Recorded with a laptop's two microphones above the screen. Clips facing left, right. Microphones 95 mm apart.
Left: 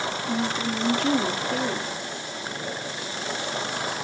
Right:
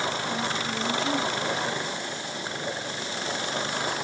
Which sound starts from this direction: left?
A woman speaking, at 0.3 s.